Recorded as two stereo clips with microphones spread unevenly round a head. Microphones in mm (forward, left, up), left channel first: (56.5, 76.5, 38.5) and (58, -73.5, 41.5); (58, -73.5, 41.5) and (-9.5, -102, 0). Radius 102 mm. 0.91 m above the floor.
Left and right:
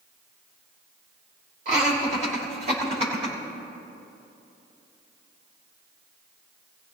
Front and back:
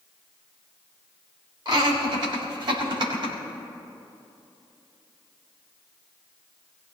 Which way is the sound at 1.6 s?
140° right.